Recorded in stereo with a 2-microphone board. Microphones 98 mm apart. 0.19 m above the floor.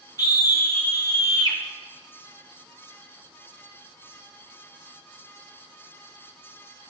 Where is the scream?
40° left (ahead or behind), 2 m.